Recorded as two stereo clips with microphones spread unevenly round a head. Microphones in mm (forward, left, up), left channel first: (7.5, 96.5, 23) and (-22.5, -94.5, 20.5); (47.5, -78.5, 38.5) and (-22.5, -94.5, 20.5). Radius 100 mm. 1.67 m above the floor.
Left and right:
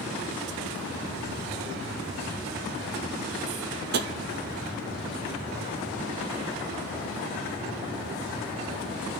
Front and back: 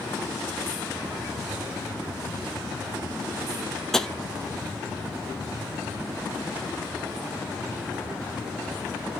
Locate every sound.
3.9 s tapping: 65° right, 0.6 m